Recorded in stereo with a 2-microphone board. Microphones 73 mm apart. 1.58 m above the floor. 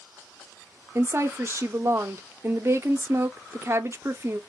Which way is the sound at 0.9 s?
35° right (ahead or behind).